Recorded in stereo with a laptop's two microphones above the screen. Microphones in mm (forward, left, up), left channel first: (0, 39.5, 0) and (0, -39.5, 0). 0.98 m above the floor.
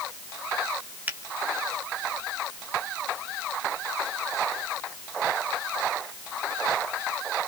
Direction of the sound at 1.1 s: 20° right (ahead or behind).